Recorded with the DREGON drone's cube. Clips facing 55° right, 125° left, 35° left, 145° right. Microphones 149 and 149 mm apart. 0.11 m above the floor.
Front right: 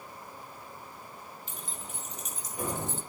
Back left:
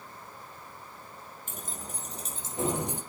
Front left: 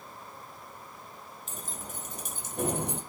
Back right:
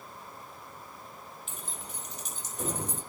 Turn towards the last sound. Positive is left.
turn(degrees=50)